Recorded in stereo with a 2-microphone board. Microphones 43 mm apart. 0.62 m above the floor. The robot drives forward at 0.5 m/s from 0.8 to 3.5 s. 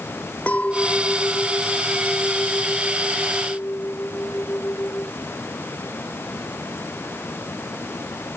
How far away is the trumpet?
I don't hear a trumpet.